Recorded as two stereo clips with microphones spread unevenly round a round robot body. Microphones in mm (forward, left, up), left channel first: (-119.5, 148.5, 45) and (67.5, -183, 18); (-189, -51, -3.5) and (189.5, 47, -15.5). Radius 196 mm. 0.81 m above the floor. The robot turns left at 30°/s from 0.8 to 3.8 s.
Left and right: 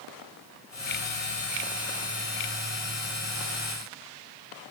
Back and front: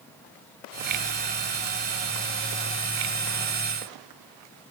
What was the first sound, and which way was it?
Only background noise.